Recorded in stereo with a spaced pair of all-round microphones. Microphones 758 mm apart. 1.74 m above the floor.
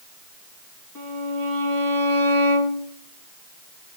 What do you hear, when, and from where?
0.9 s a violin: 25° left (ahead or behind), 2.5 m